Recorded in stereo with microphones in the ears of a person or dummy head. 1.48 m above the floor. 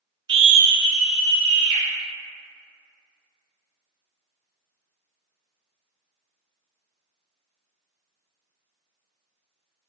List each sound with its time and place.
0.3 s a scream: 30° right (ahead or behind), 0.5 m; by 1.8 s 50° right (ahead or behind), 1.3 m